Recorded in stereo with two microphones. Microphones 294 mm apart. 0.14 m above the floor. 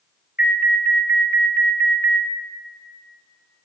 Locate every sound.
0.4 s an alarm: 25° left (ahead or behind), 0.9 m